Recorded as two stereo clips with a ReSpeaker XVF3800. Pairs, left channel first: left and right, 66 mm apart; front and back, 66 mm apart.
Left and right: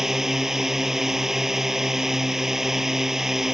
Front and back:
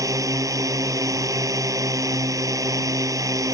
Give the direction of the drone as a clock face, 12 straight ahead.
6 o'clock.